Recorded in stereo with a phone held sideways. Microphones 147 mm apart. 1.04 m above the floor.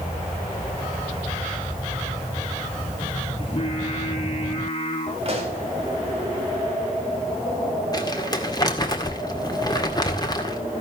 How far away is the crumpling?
About 1.8 m.